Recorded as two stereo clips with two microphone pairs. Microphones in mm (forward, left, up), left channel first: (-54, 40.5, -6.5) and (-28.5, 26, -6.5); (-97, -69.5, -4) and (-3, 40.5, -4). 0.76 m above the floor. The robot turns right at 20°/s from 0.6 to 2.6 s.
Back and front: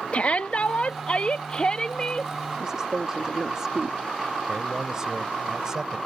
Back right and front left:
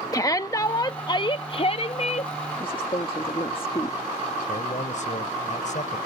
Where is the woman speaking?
90° right.